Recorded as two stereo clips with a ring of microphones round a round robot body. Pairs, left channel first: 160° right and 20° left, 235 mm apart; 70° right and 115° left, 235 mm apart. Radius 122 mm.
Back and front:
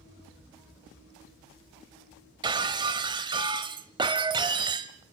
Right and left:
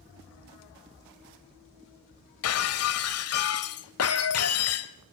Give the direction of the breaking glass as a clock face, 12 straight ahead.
2 o'clock.